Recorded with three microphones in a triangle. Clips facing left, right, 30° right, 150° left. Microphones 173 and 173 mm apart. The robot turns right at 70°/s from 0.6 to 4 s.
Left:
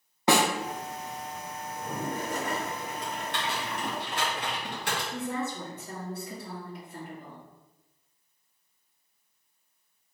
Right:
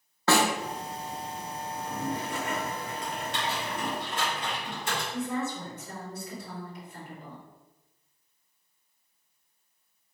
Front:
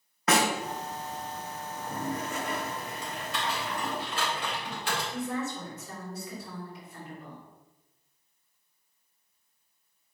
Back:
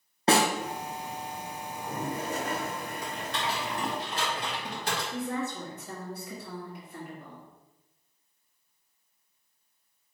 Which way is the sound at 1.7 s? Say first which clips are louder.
Right 1 dB, even; 70° left.